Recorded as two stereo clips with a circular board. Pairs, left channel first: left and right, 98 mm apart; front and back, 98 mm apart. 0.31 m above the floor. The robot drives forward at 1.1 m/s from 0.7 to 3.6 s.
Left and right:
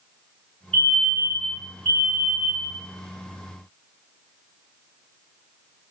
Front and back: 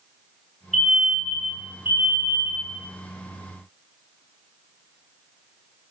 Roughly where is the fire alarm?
Right.